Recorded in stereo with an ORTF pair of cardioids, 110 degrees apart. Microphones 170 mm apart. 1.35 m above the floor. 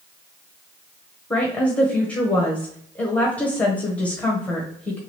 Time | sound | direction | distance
1.3 | a woman speaking | 10° left | 1.3 m